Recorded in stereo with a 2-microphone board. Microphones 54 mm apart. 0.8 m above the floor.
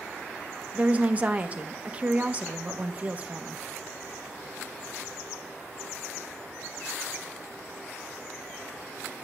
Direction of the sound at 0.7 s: 30° right (ahead or behind).